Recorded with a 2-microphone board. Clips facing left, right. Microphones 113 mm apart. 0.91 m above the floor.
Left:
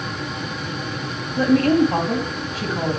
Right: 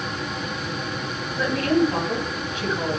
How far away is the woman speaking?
About 5 m.